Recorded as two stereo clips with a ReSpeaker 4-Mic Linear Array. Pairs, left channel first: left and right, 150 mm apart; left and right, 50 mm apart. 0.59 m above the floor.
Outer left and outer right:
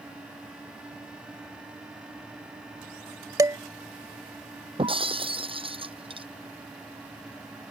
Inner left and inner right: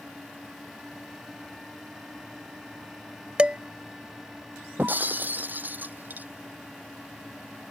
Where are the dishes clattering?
25° right (ahead or behind).